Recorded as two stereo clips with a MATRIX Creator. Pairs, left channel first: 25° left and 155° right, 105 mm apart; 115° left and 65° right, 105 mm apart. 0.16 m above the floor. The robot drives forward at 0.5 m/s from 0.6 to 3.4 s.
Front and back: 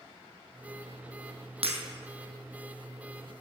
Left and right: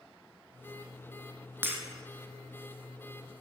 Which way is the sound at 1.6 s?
135° right.